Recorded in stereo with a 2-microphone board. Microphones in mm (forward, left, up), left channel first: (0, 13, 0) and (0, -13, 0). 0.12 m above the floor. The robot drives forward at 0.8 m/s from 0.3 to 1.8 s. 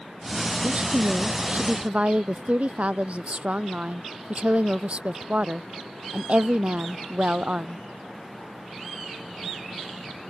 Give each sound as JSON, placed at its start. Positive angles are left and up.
{"t": 0.6, "sound": "a woman speaking", "side_deg": -45}